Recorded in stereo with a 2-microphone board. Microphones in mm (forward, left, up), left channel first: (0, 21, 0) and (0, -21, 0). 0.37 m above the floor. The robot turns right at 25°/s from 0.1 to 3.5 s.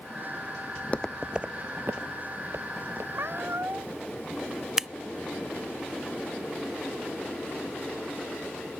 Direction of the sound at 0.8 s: 55° left (ahead or behind).